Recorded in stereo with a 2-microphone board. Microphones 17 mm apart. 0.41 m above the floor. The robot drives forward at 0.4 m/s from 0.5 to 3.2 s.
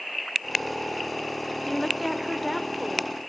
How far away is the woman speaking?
About 0.8 m.